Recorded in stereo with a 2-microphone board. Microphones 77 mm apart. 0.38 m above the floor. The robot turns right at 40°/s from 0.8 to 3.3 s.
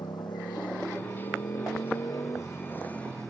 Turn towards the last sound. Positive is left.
turn(degrees=175)